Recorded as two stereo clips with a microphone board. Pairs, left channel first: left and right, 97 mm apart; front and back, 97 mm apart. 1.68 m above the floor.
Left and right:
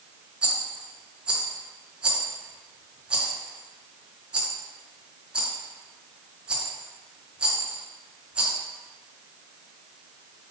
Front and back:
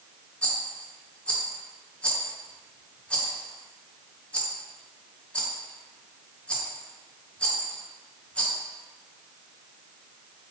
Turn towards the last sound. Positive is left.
turn(degrees=-45)